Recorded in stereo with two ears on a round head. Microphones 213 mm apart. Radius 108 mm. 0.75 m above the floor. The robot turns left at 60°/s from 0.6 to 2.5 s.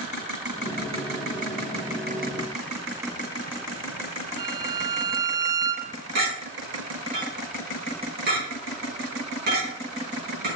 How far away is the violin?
About 0.7 m.